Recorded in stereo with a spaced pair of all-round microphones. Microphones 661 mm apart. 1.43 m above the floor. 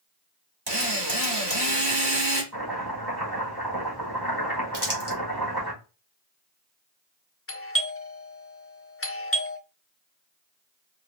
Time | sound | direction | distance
0.7 | a drill | 40° right (ahead or behind) | 1.9 m
2.5 | chopping | 35° right (ahead or behind) | 2.5 m
4.7 | crumpling | 30° right (ahead or behind) | 1.6 m
7.5 | a doorbell | 20° left (ahead or behind) | 0.6 m